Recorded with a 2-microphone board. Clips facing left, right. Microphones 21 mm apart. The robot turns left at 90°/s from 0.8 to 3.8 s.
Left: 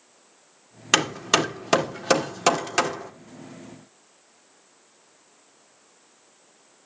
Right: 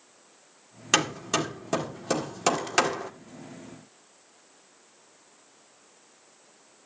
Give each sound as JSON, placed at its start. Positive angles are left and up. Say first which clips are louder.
{"t": 0.9, "sound": "hammering", "louder": "left 4 dB", "side_deg": 20, "distance_m": 1.7}